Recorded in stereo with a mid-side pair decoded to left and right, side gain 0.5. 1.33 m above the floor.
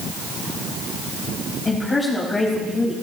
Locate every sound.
1.6 s a woman speaking: 20° left, 4.5 m